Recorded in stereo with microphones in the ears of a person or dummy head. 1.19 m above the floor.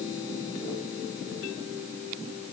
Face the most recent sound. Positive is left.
No sound to turn to.